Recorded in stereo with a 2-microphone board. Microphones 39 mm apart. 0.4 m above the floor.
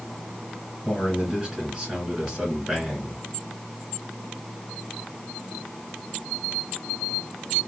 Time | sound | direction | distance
0.8 | a man speaking | 10° right (ahead or behind) | 2.5 m